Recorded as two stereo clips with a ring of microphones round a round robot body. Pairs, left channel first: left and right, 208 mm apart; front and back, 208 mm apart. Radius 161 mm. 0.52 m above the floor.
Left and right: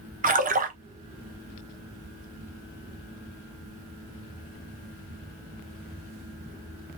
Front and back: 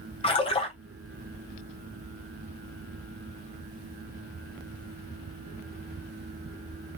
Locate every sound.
0.2 s a splash: 55° right, 1.0 m